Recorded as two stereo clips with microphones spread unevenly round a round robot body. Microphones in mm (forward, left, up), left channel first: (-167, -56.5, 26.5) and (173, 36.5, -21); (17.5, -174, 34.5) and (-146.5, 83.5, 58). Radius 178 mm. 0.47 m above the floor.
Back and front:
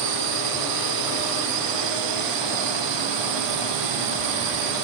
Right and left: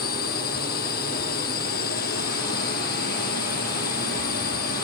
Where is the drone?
10° left.